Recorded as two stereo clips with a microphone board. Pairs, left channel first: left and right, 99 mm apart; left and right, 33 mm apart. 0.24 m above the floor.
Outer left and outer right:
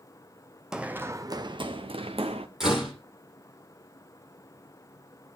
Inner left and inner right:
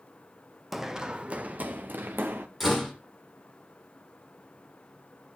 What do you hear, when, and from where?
0.7 s running footsteps: 5° right (ahead or behind), 0.9 m; by 2.5 s 75° right (ahead or behind), 1.5 m
2.6 s a door slam: 5° right (ahead or behind), 6.5 m